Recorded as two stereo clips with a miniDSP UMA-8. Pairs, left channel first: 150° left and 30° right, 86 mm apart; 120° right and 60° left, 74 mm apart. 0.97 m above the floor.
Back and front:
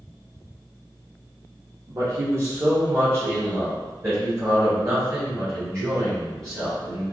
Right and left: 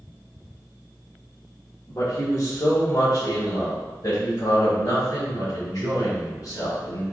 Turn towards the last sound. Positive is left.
turn(degrees=-85)